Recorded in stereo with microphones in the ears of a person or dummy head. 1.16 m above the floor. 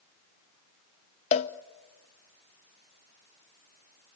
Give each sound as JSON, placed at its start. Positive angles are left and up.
{"t": 1.3, "sound": "a cowbell", "side_deg": 30, "distance_m": 0.9}